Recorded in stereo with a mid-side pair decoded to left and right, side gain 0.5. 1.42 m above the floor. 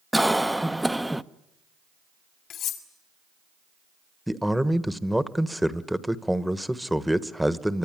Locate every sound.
0.1 s a cough: 5° right, 0.9 m
2.5 s cutlery clinking: 65° left, 3 m
4.3 s a man speaking: straight ahead, 1.3 m